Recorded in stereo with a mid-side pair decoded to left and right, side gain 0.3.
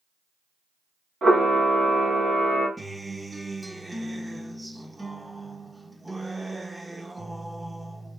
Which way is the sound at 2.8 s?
15° right.